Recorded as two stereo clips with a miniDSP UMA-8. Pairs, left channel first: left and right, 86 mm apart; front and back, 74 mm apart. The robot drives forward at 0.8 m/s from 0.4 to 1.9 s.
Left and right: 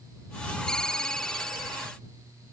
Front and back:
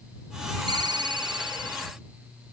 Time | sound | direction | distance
0.7 | a ringtone | 175° left | ?